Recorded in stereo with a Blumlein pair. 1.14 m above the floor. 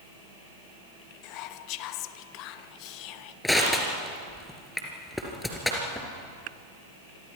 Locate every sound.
1.2 s whispering: 40° left, 1.0 m
3.4 s crushing: 5° left, 3.5 m